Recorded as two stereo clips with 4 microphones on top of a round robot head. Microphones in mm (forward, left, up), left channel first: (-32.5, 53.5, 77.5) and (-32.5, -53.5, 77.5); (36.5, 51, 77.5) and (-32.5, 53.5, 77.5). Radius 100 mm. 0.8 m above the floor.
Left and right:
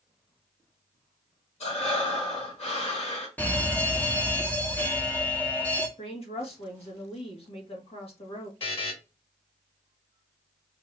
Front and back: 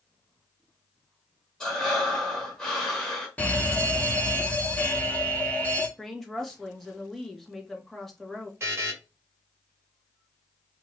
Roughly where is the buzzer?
Behind left.